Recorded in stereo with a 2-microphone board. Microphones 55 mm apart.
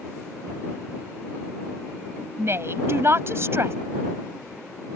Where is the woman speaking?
50° right (ahead or behind).